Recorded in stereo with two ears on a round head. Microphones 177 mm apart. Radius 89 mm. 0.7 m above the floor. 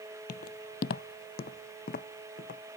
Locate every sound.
0.3 s footsteps: 45° left (ahead or behind)